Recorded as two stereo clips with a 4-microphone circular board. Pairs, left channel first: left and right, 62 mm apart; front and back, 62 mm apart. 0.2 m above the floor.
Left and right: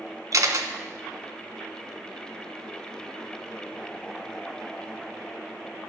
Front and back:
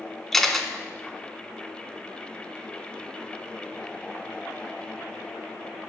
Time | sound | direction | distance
0.3 | a camera shutter | 85° right | 0.5 m